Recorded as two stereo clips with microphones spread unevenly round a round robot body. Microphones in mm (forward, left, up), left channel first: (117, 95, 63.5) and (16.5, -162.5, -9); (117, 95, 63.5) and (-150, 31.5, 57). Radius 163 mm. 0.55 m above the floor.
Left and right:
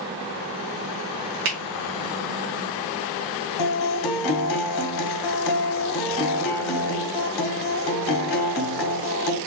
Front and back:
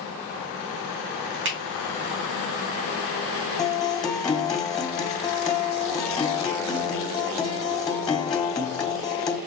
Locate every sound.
1.4 s a finger snap: 125° right, 1.8 m
3.6 s a guitar: 90° left, 1.8 m